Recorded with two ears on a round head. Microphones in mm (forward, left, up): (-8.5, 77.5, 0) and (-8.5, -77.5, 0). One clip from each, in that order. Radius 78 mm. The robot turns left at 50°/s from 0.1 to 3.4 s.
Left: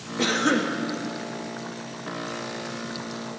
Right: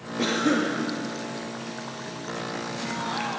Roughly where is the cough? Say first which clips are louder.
Left 1 dB; left.